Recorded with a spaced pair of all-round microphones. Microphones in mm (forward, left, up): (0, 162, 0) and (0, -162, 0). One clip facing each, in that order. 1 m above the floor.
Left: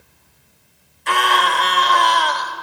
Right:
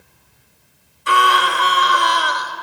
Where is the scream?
10° right (ahead or behind), 2 m.